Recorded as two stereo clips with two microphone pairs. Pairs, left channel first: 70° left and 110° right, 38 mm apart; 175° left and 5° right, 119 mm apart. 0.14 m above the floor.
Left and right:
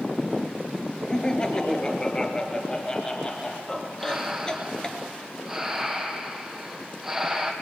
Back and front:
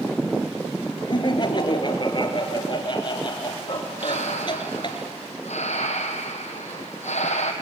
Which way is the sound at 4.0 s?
170° left.